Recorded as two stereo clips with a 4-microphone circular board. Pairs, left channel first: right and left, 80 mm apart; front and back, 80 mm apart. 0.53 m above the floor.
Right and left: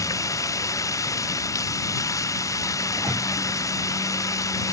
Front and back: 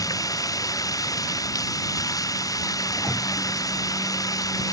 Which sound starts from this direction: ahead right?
Running water, at 0.0 s.